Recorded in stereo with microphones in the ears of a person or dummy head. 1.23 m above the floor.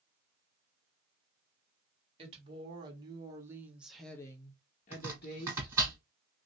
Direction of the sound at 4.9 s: 20° right (ahead or behind).